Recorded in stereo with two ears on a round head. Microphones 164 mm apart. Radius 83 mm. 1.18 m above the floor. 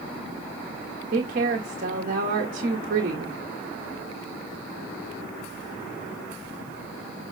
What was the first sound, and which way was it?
A woman speaking, 50° right (ahead or behind).